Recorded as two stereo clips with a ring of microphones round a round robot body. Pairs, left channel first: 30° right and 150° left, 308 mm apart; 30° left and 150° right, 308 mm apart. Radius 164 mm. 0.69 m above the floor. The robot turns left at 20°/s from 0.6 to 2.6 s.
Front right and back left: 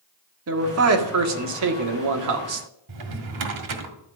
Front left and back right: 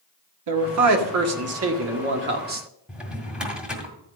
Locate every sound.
0.5 s a man speaking: 170° right, 1.8 m; by 2.7 s 150° left, 1.8 m
2.9 s a drawer: 125° left, 1.9 m